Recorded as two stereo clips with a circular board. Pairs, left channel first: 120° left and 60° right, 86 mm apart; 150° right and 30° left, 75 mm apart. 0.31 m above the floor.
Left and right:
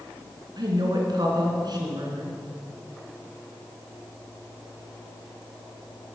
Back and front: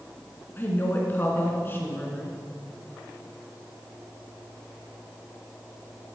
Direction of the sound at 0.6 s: 90° right.